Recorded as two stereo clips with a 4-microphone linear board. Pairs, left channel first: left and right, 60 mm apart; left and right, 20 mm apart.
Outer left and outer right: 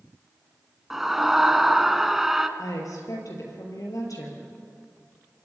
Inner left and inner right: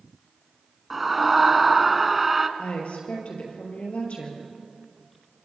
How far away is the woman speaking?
About 5 m.